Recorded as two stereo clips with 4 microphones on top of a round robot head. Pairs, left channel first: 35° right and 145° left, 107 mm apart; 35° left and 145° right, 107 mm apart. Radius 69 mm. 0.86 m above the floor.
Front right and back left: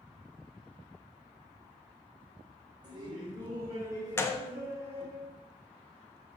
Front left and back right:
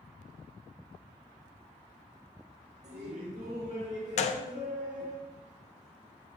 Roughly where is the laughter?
Behind.